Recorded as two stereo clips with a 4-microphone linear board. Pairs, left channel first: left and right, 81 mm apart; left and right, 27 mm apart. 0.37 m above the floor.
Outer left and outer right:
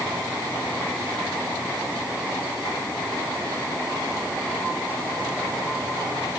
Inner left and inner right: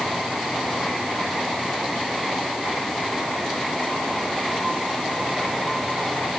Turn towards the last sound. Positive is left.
No sound to turn to.